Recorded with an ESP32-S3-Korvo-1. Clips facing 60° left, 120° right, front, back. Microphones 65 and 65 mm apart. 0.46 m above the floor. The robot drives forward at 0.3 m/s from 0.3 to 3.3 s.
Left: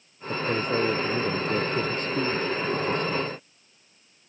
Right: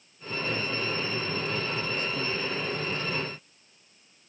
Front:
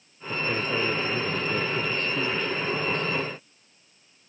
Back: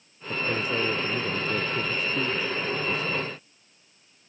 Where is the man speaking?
95° left.